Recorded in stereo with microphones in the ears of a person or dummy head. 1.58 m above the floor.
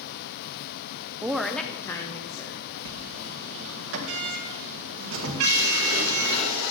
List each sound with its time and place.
1.2 s a woman speaking: 10° right (ahead or behind), 0.6 m; by 2.6 s 20° left (ahead or behind), 1.9 m
2.9 s a sliding door: 75° right (ahead or behind), 1.7 m
5.4 s a splash: 75° left (ahead or behind), 6 m